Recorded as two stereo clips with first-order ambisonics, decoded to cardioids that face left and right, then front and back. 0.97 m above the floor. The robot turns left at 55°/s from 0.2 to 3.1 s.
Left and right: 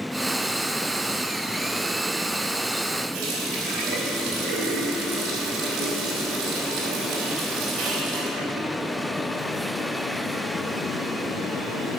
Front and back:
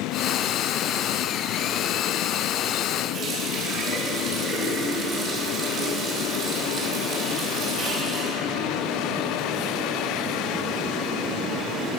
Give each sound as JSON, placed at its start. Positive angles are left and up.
{"t": 3.1, "sound": "a running tap", "azimuth_deg": -125, "distance_m": 4.0}